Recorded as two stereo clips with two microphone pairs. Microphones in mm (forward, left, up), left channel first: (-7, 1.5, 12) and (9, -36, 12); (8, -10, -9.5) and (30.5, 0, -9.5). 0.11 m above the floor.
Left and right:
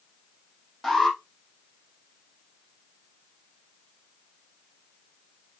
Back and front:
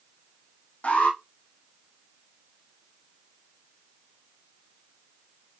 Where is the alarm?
160° right, 3 m.